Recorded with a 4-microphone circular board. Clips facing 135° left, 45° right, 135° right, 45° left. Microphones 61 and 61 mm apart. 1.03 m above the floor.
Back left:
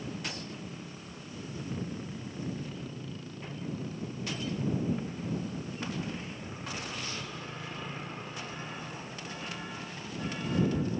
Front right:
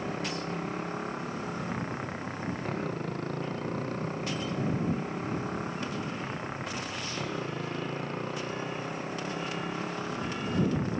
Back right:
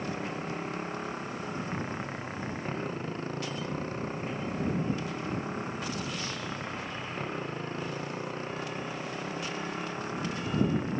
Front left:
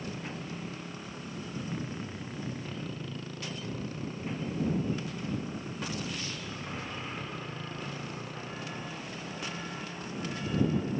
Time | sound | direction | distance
0.0 | a motorcycle | 80° right | ?